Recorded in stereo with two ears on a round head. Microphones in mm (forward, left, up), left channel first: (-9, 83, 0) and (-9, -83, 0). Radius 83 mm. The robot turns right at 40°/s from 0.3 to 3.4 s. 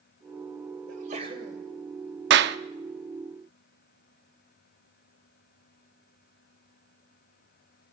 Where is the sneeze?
45° right (ahead or behind), 3.5 m; by 1.6 s 20° right (ahead or behind), 3.5 m.